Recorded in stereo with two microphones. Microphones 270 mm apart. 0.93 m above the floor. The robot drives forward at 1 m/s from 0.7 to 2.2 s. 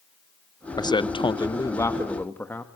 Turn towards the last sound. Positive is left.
turn(degrees=10)  # may be behind; listen again after turning